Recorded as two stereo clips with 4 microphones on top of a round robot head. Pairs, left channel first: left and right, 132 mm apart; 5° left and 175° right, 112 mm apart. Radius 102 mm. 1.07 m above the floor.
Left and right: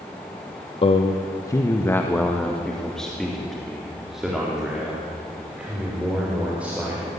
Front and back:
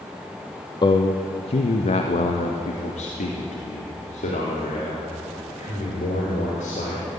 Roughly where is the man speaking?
Ahead left.